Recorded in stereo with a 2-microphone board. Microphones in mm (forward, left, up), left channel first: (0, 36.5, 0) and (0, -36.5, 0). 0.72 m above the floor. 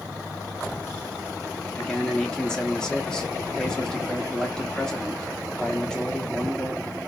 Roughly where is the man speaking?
Centre.